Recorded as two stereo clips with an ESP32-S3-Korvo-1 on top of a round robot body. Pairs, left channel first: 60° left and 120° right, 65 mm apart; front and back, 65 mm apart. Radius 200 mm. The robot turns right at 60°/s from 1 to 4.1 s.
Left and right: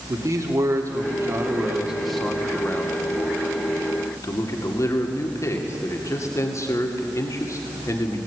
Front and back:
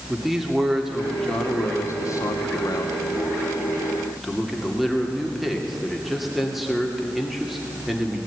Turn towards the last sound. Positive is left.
turn(degrees=95)